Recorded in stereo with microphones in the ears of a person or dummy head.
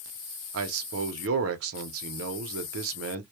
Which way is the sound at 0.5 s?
70° right (ahead or behind).